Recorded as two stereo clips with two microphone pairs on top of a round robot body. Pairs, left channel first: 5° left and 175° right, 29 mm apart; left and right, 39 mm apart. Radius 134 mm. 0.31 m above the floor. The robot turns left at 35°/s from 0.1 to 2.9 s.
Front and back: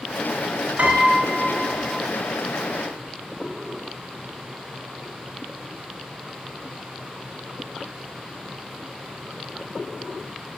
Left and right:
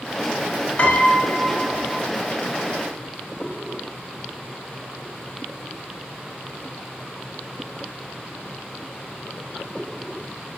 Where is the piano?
150° left, 1.9 m; by 1.9 s 110° left, 1.9 m.